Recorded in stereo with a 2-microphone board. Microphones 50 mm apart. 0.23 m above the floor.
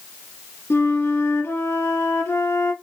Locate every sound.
0.7 s a flute: 60° left (ahead or behind), 1.3 m